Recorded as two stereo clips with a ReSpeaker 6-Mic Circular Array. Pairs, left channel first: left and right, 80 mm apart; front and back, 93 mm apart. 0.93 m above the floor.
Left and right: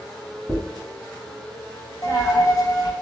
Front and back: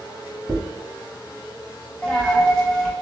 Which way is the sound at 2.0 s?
80° left.